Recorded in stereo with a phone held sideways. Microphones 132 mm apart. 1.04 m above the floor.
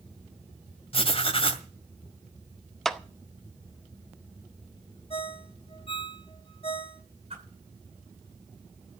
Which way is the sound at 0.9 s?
45° left (ahead or behind).